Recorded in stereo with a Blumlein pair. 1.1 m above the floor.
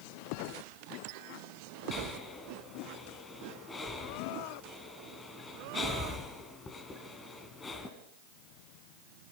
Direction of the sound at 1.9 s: 15° left.